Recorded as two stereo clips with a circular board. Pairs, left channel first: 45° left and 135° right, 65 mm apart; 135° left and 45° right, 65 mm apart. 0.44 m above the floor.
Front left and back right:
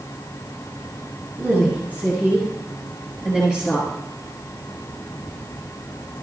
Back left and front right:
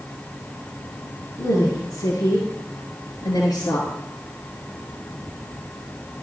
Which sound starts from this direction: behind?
A woman speaking, at 1.4 s.